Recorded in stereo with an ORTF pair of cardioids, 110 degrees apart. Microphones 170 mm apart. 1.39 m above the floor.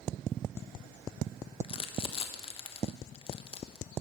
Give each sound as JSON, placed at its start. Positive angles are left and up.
{"t": 1.6, "sound": "crumpling", "azimuth_deg": 35, "distance_m": 1.0}